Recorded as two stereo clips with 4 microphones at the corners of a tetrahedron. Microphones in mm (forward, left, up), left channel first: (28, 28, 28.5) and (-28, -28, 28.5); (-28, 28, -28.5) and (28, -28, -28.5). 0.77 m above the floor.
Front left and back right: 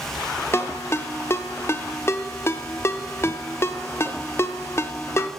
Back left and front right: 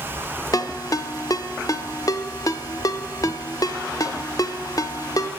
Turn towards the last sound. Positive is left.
turn(degrees=100)